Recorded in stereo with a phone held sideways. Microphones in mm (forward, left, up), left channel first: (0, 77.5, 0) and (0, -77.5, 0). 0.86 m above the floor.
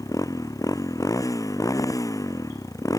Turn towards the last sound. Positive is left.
turn(degrees=20)  # may be behind; listen again after turning